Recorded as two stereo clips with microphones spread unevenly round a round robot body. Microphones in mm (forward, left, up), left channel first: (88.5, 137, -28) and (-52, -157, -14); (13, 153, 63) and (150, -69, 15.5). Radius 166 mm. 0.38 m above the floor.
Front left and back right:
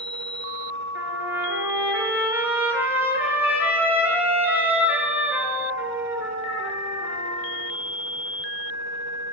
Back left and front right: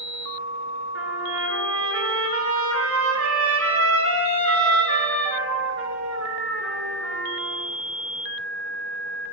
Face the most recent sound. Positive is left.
turn(degrees=-30)